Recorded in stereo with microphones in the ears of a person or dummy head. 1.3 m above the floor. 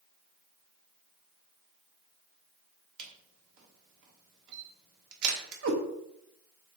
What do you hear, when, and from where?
3.0 s a camera shutter: 70° right (ahead or behind), 1.2 m
5.6 s a cat meowing: 65° right (ahead or behind), 1.0 m